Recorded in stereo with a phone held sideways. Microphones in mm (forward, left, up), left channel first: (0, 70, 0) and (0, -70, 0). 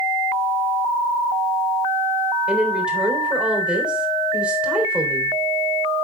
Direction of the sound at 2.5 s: 5° right (ahead or behind).